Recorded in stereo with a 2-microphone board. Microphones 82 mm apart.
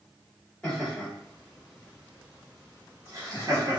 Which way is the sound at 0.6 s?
15° left (ahead or behind).